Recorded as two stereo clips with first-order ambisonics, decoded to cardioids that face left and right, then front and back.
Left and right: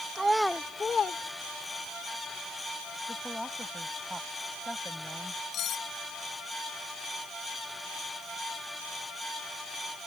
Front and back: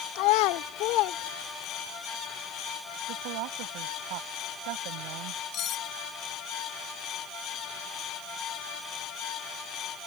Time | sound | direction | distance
0.1 | a child speaking | 15° right | ?
3.1 | a woman speaking | 175° left | ?
5.5 | cutlery clinking | 45° left | ?